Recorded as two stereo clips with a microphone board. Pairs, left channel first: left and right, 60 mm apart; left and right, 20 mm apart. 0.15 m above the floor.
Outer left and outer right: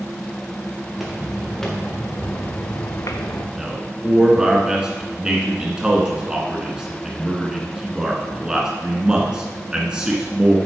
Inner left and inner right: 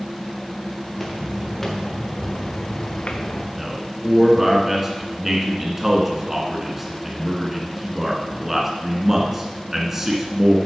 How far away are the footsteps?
About 2.5 m.